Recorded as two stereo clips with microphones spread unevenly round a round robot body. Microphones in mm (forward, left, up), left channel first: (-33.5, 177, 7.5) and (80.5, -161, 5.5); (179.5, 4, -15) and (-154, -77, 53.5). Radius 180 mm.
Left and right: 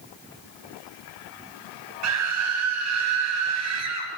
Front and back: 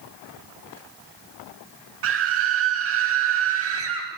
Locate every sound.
2.0 s a scream: 115° right, 3 m